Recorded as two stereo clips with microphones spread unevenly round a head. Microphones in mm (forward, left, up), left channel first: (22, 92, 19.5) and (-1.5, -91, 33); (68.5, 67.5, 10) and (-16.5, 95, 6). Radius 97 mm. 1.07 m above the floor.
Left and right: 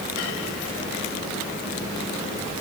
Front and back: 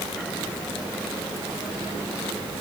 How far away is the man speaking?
No man speaking in this recording.